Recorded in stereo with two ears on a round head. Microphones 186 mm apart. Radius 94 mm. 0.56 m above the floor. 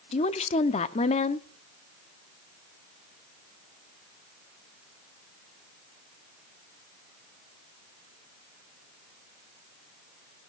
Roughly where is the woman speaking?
Left.